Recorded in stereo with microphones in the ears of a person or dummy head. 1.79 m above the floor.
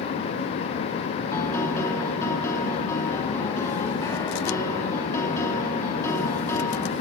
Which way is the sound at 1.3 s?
15° left (ahead or behind).